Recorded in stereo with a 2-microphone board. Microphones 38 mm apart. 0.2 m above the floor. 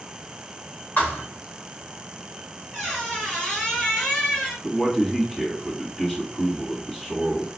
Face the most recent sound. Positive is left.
turn(degrees=0)  # may be behind; listen again after turning